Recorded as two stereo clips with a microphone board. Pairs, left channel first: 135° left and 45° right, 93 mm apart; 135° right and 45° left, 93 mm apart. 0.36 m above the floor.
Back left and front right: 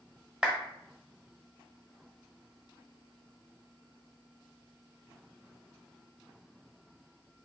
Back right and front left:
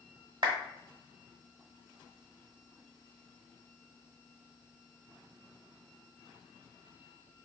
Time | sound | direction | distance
0.4 | a clap | 30° left | 1.0 m